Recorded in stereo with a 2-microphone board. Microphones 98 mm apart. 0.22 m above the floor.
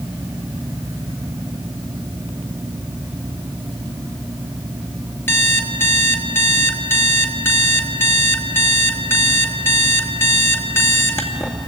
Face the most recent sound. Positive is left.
turn(degrees=25)  # may be behind; listen again after turning